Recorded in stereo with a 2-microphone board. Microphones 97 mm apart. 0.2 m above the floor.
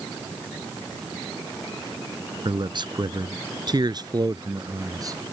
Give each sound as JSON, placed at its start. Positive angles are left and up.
{"t": 2.5, "sound": "a man speaking", "side_deg": -55}